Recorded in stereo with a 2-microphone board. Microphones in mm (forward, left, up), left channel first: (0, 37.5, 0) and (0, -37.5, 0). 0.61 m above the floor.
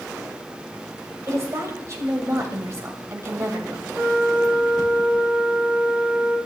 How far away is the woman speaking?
About 3 m.